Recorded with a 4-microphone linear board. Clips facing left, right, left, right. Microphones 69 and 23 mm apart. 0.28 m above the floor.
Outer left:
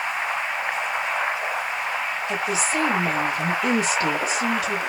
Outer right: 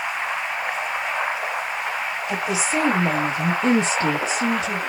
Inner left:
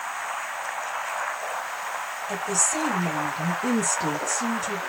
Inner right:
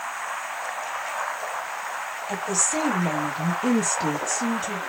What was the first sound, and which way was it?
A woman speaking, 15° right (ahead or behind).